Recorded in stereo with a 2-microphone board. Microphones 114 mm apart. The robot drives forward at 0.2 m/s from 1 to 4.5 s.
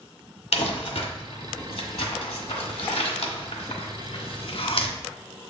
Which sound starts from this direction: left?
Crumpling, at 0.5 s.